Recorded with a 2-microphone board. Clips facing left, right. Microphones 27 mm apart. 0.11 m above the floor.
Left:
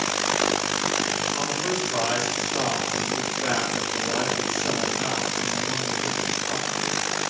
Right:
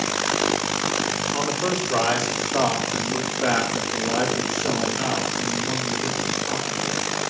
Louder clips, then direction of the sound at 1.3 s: Right 2 dB; 80° right.